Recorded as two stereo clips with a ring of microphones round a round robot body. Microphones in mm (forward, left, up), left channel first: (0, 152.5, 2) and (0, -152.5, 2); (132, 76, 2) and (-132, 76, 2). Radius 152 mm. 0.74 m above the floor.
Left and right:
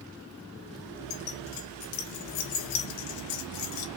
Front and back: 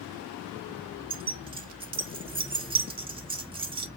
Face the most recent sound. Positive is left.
turn(degrees=110)